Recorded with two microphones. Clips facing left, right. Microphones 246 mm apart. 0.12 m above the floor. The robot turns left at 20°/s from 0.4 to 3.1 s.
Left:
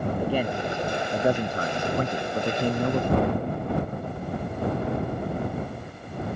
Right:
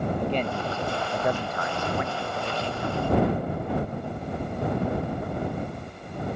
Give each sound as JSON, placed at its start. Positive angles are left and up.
{"t": 0.2, "sound": "a man speaking", "azimuth_deg": 170}